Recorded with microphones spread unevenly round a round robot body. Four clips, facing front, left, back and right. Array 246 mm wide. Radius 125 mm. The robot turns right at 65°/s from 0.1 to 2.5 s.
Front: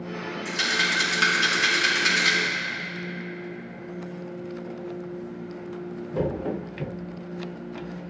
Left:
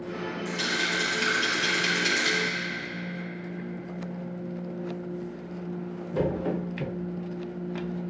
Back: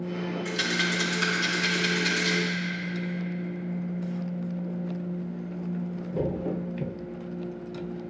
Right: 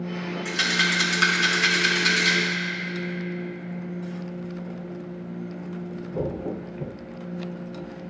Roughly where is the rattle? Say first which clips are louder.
Right 5 dB, front 4 dB; right.